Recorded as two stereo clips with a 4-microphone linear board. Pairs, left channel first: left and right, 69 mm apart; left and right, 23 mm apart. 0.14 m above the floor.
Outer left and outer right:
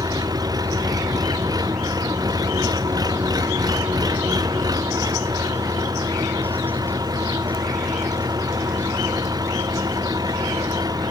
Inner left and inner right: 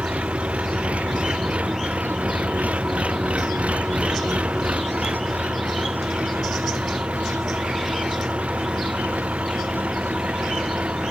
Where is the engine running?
65° right (ahead or behind).